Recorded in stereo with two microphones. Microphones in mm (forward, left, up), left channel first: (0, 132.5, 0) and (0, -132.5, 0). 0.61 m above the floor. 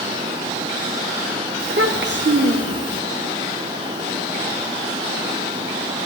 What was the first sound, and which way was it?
A child speaking, 45° right (ahead or behind).